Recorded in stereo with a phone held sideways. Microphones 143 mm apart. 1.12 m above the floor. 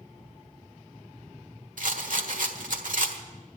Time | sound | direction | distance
1.8 | a rattle | 70° right (ahead or behind) | 1.5 m